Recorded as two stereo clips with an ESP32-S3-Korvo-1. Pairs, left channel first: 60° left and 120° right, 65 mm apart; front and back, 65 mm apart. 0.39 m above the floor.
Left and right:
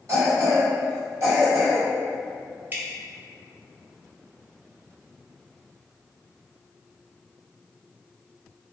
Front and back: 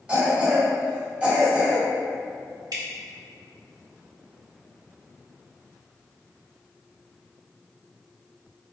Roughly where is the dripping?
Behind.